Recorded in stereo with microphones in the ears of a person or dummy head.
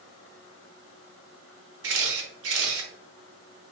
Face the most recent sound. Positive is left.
turn(degrees=-70)  # may be behind; listen again after turning